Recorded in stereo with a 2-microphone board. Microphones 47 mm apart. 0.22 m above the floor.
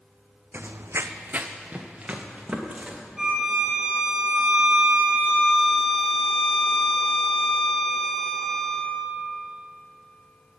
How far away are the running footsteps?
About 0.5 m.